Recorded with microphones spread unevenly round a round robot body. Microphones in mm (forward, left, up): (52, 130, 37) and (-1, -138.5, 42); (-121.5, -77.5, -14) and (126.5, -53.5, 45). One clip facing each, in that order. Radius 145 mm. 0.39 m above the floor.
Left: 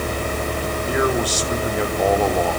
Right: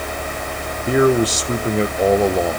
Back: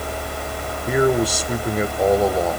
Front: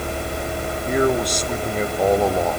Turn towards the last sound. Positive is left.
turn(degrees=-130)